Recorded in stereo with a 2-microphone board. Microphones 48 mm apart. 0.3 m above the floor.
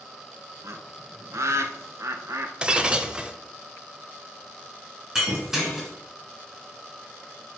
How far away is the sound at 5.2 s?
About 2 m.